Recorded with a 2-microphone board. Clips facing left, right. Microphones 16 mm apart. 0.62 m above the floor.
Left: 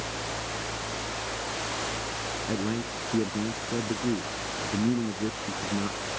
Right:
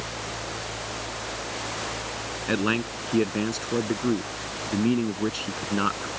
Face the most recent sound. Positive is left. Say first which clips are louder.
# right 8 dB
turn(degrees=-60)  # may be behind; listen again after turning